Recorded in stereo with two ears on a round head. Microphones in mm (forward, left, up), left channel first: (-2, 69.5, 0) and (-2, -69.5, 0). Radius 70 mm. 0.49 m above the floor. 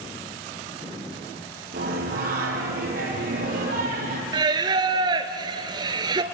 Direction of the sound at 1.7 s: 65° right (ahead or behind).